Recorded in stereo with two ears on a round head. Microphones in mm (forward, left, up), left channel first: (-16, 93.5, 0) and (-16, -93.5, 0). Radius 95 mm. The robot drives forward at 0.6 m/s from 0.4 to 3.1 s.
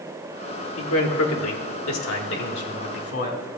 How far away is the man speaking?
About 1.5 m.